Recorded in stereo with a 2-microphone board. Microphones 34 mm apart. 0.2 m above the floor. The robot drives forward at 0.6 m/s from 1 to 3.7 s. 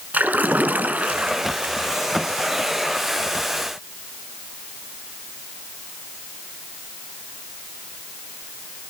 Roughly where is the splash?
Right.